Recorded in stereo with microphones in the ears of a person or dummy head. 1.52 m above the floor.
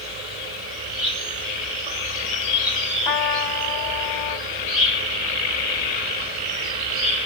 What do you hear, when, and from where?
0.0 s an insect: 40° right (ahead or behind), 3 m
3.0 s a trumpet: 20° left (ahead or behind), 1.9 m